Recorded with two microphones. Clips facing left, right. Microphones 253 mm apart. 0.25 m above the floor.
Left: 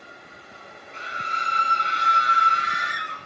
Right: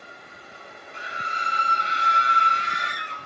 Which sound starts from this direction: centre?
A scream, at 0.9 s.